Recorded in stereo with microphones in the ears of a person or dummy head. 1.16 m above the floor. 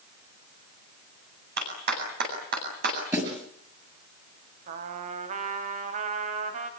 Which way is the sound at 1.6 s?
65° right (ahead or behind).